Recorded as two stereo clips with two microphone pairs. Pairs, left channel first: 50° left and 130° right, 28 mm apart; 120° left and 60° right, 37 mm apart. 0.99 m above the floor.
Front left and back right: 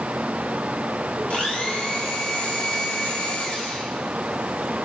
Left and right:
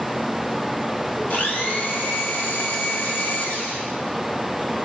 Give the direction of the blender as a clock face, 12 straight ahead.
9 o'clock.